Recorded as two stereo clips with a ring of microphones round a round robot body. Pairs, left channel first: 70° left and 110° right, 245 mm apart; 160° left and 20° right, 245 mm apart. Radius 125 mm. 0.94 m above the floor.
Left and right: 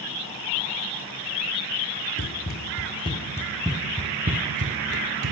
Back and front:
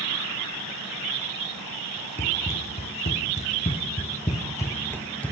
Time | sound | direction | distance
2.2 | running footsteps | 105° left | 1.3 m